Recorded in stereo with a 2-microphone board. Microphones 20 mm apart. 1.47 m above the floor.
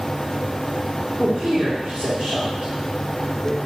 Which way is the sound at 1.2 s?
40° right (ahead or behind).